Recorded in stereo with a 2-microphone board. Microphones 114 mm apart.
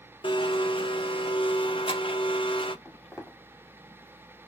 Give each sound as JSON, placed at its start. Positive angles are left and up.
{"t": 0.2, "sound": "a blender", "side_deg": 45, "distance_m": 0.5}
{"t": 2.9, "sound": "footsteps", "side_deg": 0, "distance_m": 2.0}